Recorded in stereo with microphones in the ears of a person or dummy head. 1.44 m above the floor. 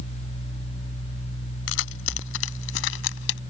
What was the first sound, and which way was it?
Keys jangling, 80° left.